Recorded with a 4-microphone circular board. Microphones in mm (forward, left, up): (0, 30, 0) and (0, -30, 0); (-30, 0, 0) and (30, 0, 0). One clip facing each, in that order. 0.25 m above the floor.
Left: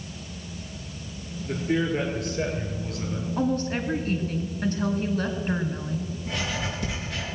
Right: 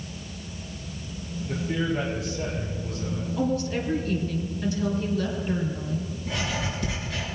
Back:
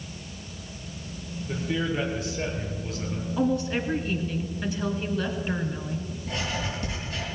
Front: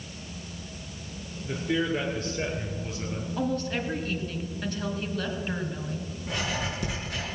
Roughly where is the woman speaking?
Left.